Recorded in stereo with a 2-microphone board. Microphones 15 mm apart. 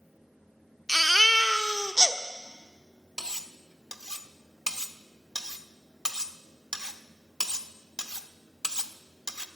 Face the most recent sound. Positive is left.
turn(degrees=-55)  # may be behind; listen again after turning